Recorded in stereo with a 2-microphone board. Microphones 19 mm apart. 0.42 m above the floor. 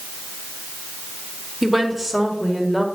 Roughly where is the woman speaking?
Centre.